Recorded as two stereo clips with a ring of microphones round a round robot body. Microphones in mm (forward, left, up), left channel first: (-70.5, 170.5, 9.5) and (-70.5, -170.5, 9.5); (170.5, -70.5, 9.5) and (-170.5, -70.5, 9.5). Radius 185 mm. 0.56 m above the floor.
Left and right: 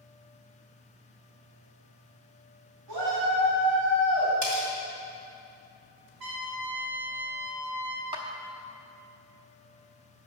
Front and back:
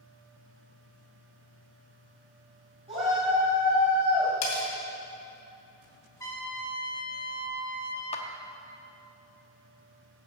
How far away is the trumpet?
About 1.9 m.